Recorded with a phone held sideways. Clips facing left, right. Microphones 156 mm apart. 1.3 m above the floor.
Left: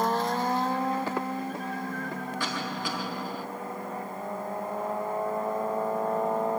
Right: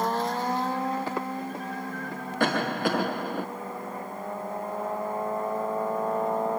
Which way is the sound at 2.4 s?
60° right (ahead or behind).